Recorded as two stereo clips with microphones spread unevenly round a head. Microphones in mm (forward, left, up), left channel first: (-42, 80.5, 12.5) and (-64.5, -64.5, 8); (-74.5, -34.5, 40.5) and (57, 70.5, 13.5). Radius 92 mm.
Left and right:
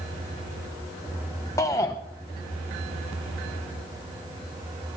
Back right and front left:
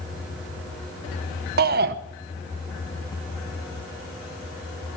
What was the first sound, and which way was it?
A shout, 5° left.